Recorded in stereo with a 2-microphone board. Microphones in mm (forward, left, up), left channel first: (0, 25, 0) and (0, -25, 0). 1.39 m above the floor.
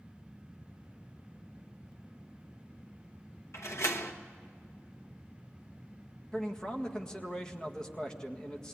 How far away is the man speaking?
About 1.8 m.